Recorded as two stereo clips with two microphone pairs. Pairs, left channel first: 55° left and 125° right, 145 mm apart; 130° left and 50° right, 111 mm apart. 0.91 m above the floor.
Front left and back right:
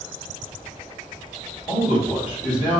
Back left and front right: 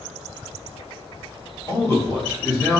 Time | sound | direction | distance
1.7 | a man speaking | 70° left | 1.7 m